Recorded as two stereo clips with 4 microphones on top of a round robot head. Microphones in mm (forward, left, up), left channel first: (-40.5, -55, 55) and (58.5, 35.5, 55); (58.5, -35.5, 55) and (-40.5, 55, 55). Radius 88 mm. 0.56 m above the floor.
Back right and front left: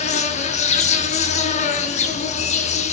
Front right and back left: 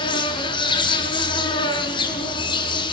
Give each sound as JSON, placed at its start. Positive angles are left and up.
{"t": 0.0, "sound": "an insect", "azimuth_deg": -100, "distance_m": 4.0}